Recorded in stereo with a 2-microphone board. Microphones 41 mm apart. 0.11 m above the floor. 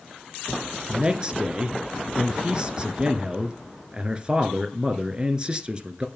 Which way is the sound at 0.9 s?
25° right (ahead or behind).